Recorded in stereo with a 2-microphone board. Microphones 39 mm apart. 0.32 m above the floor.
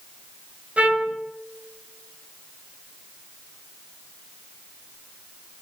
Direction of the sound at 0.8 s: 35° right (ahead or behind).